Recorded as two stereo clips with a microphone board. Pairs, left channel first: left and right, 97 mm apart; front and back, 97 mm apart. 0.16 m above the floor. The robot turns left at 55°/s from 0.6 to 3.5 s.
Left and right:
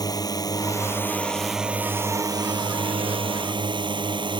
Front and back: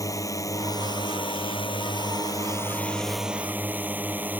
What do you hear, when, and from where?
0.0 s a drone: 50° left; by 4.4 s 110° right